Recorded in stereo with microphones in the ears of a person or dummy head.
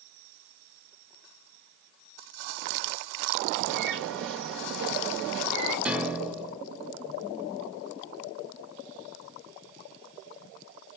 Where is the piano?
5° right (ahead or behind), 0.9 m.